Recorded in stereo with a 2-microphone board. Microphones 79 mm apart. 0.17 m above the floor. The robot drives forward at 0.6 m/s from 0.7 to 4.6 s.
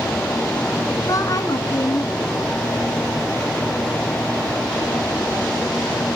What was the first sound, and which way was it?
A woman speaking, 45° left (ahead or behind).